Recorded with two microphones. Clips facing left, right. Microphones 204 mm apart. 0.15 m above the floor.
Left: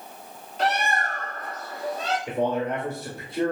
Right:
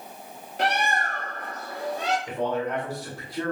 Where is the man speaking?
20° left (ahead or behind), 1.1 m.